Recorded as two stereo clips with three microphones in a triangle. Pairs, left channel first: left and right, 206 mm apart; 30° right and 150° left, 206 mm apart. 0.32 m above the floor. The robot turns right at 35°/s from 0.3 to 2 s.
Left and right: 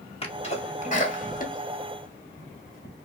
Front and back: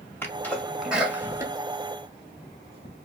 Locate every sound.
0.2 s a sneeze: 45° left, 2.0 m; by 2.9 s 105° left, 2.0 m